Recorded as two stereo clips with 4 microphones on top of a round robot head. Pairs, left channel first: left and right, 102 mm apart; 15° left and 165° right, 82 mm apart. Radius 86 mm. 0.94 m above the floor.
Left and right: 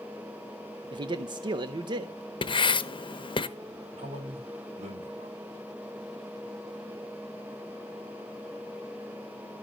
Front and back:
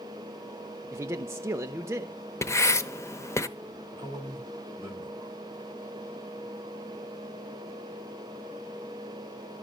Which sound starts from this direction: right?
A man speaking, at 4.0 s.